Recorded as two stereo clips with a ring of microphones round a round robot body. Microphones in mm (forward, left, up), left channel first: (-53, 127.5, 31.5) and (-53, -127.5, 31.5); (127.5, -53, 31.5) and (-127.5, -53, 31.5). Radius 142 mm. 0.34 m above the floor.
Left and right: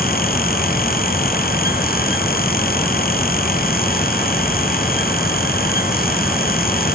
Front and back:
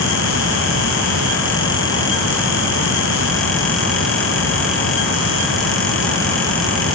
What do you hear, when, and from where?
Only background noise.